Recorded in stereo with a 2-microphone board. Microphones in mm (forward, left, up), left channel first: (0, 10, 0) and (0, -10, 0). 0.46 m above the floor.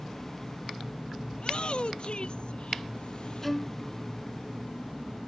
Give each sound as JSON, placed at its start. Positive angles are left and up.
{"t": 1.3, "sound": "a shout", "side_deg": 55}
{"t": 3.4, "sound": "a violin", "side_deg": 5}